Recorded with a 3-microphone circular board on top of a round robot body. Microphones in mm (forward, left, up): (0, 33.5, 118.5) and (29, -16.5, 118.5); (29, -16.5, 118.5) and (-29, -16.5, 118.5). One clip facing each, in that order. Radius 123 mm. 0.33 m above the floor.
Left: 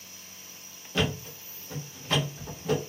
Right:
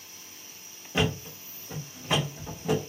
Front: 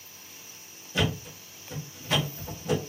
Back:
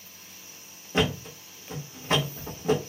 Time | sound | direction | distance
0.9 | a thud | 130° right | 1.2 m